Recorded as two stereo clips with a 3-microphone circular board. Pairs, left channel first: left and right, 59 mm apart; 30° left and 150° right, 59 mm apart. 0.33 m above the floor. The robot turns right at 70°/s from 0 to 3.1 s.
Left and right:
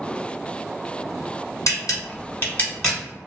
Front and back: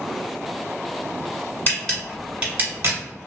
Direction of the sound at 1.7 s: 90° left.